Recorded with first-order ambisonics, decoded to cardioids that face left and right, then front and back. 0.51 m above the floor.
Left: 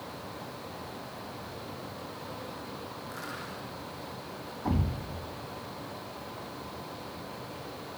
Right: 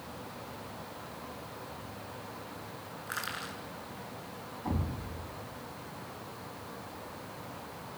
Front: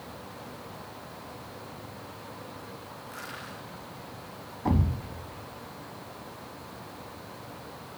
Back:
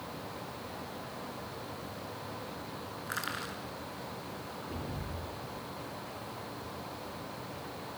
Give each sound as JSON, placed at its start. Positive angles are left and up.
{"t": 3.1, "sound": "crushing", "azimuth_deg": -140, "distance_m": 7.0}
{"t": 4.7, "sound": "a thud", "azimuth_deg": 15, "distance_m": 1.4}